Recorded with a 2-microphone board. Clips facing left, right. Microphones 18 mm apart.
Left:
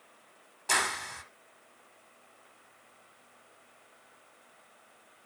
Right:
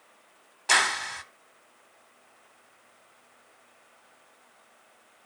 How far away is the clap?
About 1.2 m.